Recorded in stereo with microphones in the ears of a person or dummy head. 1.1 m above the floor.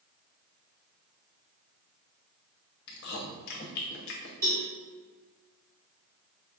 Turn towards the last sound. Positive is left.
turn(degrees=-15)  # may be behind; listen again after turning